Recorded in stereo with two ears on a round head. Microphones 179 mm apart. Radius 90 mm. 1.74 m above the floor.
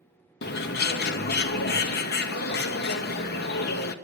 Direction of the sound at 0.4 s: 55° left (ahead or behind).